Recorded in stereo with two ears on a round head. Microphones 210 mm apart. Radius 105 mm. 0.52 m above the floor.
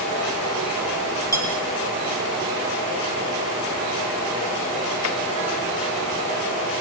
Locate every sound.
1.3 s cutlery clinking: 15° right (ahead or behind), 9 m